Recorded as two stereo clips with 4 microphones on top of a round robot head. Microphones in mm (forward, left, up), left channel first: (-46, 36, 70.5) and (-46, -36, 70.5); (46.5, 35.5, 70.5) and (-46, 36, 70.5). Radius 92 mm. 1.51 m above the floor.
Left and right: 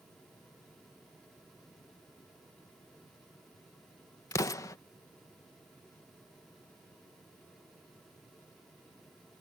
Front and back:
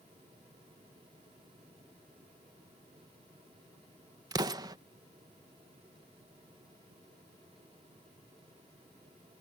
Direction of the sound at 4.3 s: 135° left.